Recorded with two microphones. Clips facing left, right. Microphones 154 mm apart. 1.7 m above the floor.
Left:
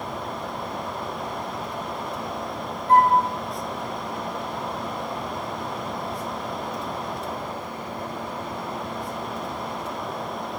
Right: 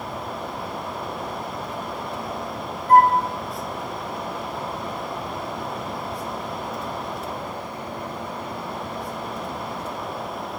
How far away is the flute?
About 0.7 m.